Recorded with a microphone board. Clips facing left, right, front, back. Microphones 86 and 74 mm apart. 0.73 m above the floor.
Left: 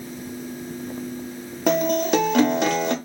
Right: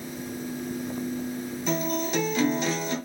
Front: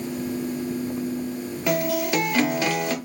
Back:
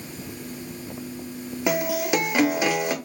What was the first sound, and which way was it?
A guitar, 105° left.